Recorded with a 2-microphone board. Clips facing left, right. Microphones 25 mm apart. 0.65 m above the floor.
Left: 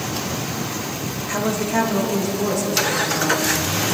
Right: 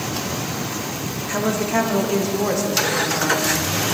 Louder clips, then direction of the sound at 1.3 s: Right 1 dB; centre (ahead or behind).